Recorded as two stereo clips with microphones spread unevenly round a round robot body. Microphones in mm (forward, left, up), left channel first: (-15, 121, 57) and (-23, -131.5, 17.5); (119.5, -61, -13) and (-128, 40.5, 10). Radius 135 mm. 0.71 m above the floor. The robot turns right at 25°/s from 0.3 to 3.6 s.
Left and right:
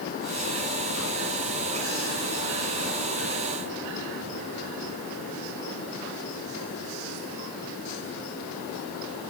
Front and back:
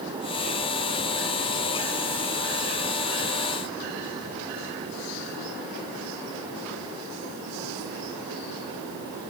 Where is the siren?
I don't hear a siren.